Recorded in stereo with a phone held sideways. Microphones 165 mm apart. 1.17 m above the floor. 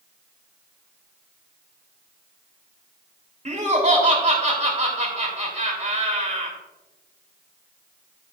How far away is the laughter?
About 3 m.